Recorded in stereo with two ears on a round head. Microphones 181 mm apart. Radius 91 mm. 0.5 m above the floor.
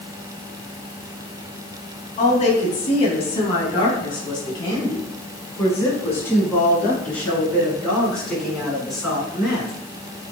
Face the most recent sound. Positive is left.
turn(degrees=0)  # may be behind; listen again after turning